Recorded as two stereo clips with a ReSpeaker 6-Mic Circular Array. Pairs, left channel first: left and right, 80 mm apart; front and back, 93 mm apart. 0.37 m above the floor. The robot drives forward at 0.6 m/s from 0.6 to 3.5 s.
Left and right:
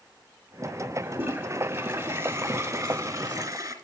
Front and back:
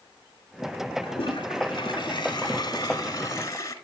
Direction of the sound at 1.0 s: 30° right.